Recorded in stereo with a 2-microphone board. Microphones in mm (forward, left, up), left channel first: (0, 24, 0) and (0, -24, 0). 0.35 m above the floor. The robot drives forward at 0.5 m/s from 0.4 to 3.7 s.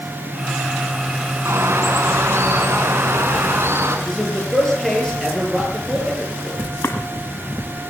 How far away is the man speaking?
About 9 m.